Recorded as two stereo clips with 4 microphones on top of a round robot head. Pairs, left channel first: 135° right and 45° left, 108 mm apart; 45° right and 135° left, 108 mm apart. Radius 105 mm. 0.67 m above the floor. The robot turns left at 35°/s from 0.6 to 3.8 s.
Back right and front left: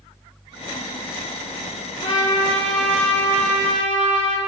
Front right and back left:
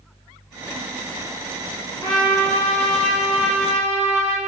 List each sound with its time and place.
2.0 s a trumpet: 100° right, 6 m; by 4.4 s 160° right, 6 m